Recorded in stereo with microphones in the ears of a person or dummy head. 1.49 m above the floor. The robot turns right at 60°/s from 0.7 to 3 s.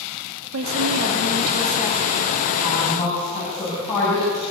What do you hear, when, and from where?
0.5 s a woman speaking: 85° right, 3.5 m; by 2.1 s straight ahead, 3.5 m
2.6 s a woman speaking: 15° right (ahead or behind), 9 m; by 4.4 s 10° left (ahead or behind), 9 m